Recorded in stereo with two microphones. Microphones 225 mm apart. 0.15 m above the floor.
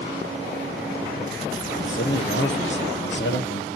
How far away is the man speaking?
About 3.5 m.